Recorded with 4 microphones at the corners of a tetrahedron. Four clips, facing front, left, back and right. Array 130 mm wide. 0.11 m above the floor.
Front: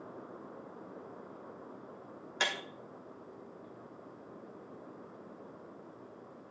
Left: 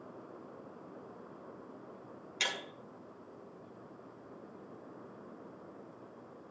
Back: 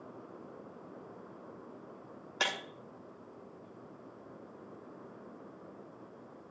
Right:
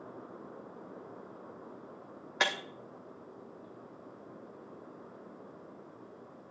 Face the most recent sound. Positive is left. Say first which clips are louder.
# right 7 dB, even
turn(degrees=-110)